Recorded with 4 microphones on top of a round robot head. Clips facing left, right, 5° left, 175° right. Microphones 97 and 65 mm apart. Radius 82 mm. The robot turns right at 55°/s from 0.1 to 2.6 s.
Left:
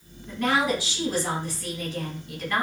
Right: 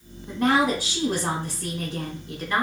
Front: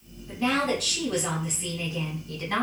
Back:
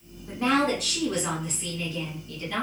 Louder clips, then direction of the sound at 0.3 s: Right 3 dB, back 2 dB; 140° right.